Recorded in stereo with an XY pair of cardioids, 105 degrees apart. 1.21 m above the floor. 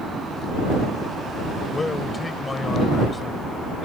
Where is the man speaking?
20° left.